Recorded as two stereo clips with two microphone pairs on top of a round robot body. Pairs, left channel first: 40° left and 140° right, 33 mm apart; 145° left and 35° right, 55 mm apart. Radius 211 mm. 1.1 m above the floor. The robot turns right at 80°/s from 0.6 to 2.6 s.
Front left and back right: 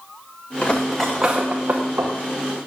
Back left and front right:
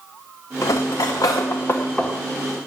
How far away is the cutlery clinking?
About 0.6 m.